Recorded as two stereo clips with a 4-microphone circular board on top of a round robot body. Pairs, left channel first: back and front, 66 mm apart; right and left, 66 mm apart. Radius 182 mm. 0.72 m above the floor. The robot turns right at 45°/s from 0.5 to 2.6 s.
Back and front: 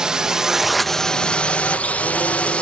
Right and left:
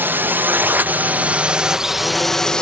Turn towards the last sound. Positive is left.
turn(degrees=-145)